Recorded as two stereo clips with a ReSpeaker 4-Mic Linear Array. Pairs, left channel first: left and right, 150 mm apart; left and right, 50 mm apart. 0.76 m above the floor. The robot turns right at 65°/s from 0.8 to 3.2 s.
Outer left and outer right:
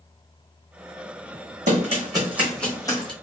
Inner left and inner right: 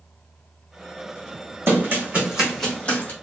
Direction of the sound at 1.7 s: 60° right (ahead or behind).